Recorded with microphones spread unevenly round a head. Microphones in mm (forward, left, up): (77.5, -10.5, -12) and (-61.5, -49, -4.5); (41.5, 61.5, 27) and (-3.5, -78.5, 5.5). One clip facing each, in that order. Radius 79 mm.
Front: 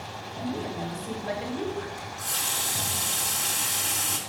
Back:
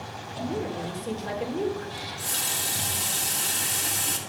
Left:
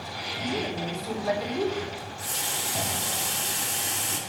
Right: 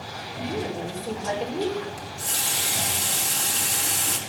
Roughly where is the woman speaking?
Behind.